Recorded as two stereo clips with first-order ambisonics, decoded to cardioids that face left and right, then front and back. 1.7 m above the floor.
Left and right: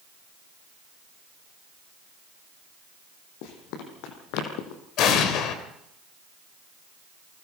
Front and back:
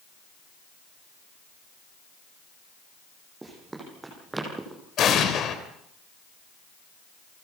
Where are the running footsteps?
100° left, 6 m.